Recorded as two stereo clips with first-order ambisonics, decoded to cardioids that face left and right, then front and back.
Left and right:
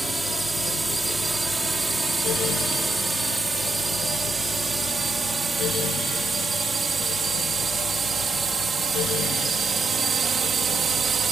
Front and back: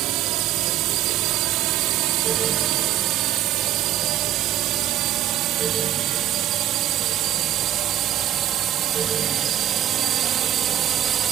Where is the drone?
170° right; by 11.3 s 140° right.